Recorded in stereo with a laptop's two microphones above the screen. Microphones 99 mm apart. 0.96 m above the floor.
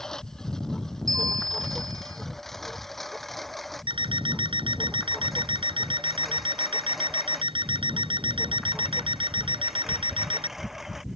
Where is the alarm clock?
60° right (ahead or behind).